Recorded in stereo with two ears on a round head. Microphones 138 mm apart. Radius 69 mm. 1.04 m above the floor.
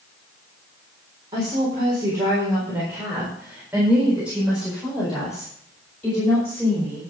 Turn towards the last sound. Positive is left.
turn(degrees=5)  # may be behind; listen again after turning